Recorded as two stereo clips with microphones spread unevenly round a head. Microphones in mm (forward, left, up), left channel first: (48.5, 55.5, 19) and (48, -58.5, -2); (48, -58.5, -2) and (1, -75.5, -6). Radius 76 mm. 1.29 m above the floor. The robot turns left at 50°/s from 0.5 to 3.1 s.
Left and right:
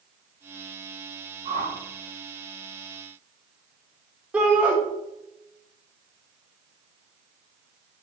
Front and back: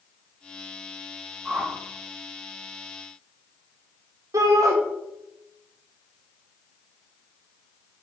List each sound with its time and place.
1.4 s a whoosh: 90° right, 1.5 m; by 1.8 s 105° right, 1.5 m
4.3 s a shout: 170° right, 1.0 m